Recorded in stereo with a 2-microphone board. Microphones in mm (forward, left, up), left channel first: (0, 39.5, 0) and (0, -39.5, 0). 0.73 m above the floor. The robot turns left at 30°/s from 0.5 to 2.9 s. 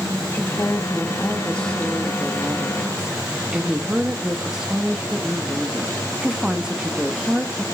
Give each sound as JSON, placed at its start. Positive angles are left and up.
{"t": 0.3, "sound": "a woman speaking", "azimuth_deg": 55, "distance_m": 1.2}